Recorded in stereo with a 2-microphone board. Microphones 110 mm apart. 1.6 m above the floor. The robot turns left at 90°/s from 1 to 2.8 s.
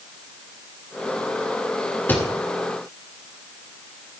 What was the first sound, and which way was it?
A thud, 20° left (ahead or behind).